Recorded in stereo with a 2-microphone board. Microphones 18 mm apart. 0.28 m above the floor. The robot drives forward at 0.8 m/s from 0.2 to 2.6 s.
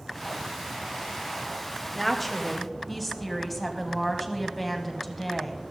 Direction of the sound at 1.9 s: 10° left (ahead or behind).